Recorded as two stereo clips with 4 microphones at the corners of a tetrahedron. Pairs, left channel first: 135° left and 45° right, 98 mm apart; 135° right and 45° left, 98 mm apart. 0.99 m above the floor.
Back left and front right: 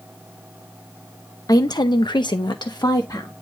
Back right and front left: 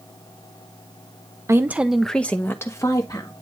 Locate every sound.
1.5 s a woman speaking: 100° left, 0.8 m; by 3.3 s straight behind, 1.6 m